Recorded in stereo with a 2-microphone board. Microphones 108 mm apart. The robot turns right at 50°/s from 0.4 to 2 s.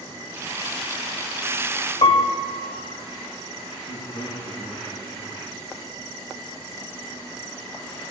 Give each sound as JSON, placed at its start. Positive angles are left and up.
{"t": 2.0, "sound": "a piano", "side_deg": 80, "distance_m": 2.0}
{"t": 3.9, "sound": "a man speaking", "side_deg": 60, "distance_m": 7.0}